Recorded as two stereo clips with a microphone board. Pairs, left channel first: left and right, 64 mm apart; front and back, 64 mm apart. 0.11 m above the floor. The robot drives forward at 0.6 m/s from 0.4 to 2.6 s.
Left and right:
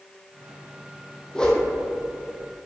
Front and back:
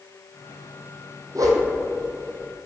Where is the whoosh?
165° left, 1.1 m; by 1.7 s 170° left, 1.3 m.